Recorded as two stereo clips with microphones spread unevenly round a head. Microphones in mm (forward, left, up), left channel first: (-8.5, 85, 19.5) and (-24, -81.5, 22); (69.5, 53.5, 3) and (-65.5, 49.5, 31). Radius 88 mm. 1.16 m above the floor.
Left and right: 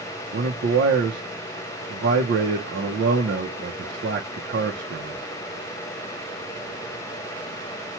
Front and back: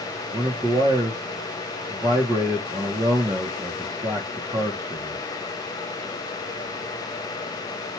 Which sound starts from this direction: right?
A man speaking, at 0.3 s.